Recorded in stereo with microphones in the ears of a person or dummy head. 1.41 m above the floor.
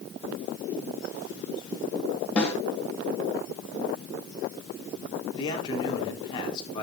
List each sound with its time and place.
2.4 s a snare drum: 15° left (ahead or behind), 3 m
5.3 s a man speaking: 30° left (ahead or behind), 3 m